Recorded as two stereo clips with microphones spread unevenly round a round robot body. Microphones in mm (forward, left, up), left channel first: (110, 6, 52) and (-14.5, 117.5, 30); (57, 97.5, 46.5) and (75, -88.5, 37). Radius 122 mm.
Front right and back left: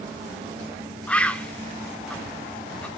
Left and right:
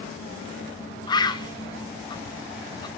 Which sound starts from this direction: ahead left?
A bird, at 1.1 s.